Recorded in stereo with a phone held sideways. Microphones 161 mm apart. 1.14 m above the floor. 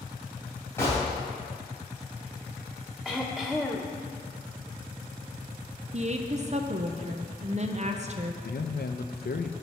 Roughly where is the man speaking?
Left.